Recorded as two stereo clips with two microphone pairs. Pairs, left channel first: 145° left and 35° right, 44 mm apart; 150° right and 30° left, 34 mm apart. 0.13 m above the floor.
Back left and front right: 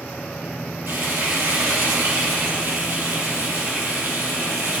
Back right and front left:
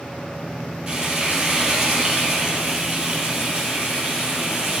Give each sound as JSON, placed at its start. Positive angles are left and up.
{"t": 0.9, "sound": "frying", "azimuth_deg": -45, "distance_m": 4.5}